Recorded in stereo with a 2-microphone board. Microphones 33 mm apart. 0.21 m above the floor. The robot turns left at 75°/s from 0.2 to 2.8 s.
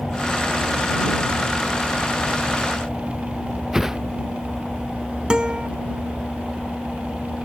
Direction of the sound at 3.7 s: 15° right (ahead or behind).